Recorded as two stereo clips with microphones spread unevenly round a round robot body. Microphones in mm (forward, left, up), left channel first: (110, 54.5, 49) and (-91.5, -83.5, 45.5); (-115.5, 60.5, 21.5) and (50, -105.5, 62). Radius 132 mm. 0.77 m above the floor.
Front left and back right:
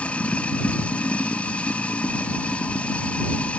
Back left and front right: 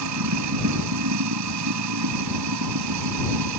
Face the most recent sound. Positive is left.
turn(degrees=-50)